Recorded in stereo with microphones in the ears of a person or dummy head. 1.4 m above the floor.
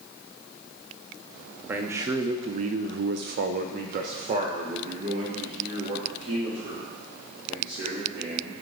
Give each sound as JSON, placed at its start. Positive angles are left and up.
{"t": 1.7, "sound": "a man speaking", "side_deg": -15, "distance_m": 0.8}